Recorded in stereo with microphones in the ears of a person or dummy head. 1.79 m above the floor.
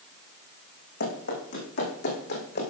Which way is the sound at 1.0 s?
65° left (ahead or behind).